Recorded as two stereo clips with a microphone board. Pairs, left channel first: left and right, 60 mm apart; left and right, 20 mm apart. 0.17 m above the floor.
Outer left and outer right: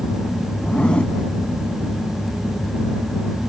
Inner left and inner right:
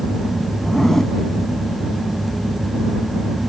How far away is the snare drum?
No snare drum in this recording.